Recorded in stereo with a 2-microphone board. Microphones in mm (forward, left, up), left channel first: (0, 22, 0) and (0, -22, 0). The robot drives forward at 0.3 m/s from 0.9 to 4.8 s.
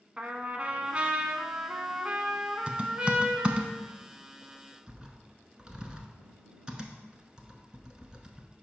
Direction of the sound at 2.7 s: 25° right (ahead or behind).